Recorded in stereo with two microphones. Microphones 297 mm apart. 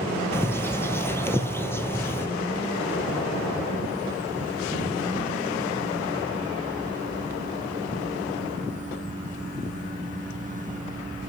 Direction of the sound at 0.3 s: 10° left (ahead or behind).